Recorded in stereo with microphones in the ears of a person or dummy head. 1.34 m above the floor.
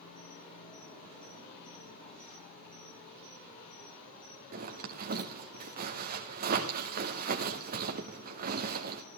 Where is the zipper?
45° right (ahead or behind), 1.5 m.